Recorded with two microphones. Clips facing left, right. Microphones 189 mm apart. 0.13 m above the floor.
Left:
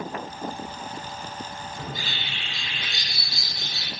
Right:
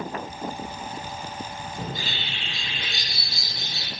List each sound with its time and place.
1.8 s a bird: 50° right (ahead or behind), 5.5 m